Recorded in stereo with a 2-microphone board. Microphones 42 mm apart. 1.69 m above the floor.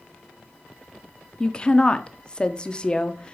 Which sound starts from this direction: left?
A woman speaking, at 1.4 s.